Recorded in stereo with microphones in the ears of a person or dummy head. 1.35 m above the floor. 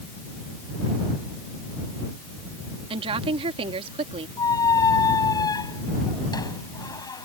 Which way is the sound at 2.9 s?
30° right (ahead or behind).